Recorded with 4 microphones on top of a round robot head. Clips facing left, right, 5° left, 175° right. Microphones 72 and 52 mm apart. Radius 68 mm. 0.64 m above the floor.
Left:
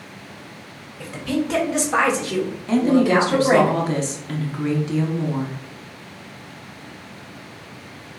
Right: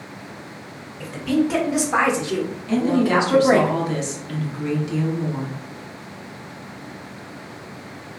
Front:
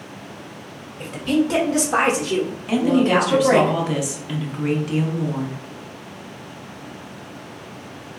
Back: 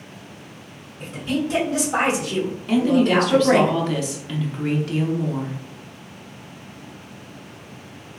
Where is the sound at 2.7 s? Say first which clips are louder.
Left 2 dB, even; 75° left, 1.0 m.